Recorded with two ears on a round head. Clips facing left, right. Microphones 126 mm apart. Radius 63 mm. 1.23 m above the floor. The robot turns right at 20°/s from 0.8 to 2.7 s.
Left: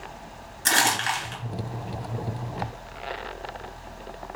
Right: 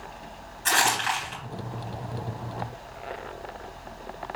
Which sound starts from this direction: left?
Crumpling, at 0.7 s.